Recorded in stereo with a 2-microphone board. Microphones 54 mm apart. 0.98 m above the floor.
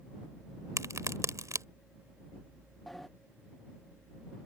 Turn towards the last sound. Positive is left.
turn(degrees=5)  # may be behind; listen again after turning